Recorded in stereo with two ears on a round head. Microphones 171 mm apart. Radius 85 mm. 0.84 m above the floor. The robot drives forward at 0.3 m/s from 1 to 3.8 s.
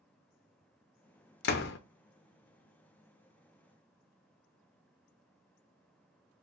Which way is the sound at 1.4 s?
55° left (ahead or behind).